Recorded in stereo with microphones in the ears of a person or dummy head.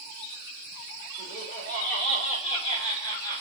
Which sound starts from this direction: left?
Laughter, at 1.2 s.